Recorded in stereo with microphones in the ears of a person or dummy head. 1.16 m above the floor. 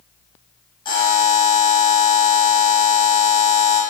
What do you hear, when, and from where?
0.8 s a buzzer: 20° left (ahead or behind), 0.7 m